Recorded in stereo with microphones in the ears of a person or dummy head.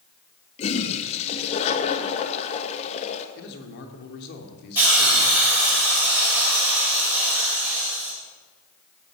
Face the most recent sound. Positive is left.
turn(degrees=-10)  # may be behind; listen again after turning